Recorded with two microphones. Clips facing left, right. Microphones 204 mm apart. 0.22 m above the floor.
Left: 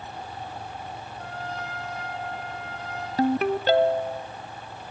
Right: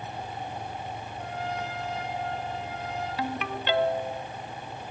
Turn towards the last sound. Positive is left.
turn(degrees=40)  # may be behind; listen again after turning